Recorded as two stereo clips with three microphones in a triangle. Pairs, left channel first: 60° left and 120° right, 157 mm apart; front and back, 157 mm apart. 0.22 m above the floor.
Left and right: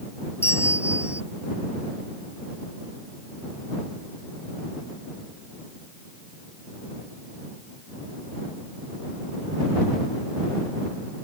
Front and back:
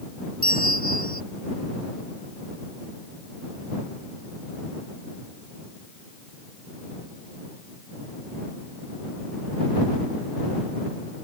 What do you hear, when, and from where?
0.4 s a bell: 15° right